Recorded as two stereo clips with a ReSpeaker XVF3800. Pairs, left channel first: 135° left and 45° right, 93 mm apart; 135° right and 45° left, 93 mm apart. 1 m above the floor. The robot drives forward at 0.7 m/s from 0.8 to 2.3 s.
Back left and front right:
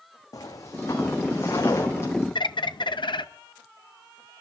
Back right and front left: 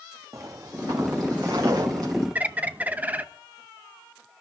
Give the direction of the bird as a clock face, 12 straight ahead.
8 o'clock.